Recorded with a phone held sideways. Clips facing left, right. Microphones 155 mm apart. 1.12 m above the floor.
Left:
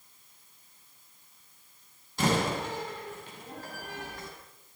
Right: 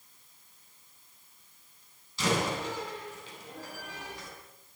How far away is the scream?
No scream in this recording.